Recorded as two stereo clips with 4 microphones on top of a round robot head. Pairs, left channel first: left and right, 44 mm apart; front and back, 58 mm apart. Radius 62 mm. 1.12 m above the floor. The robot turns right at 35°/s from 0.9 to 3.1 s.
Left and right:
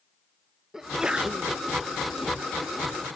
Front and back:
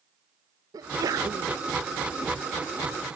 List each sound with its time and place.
0.7 s a sneeze: 170° right, 1.0 m; by 1.6 s 145° right, 1.0 m